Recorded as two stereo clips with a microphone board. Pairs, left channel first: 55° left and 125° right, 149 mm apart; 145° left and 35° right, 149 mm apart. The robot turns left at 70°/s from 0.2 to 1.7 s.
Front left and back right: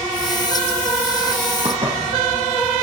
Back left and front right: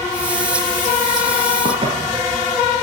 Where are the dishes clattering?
80° right, 4.5 m.